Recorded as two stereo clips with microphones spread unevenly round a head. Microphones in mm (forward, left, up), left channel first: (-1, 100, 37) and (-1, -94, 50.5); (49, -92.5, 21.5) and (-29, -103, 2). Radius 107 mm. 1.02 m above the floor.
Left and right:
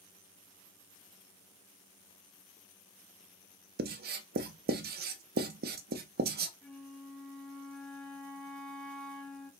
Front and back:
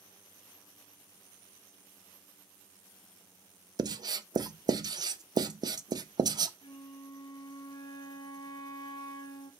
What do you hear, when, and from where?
3.8 s writing: 135° right, 0.5 m
6.6 s a flute: straight ahead, 0.6 m